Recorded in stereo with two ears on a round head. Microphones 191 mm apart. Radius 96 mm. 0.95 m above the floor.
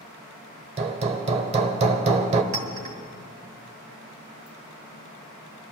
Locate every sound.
0.8 s hammering: 30° right (ahead or behind), 0.9 m
2.5 s a clink: 30° right (ahead or behind), 2 m